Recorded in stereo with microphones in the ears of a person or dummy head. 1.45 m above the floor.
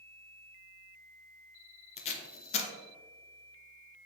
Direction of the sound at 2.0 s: 35° left (ahead or behind).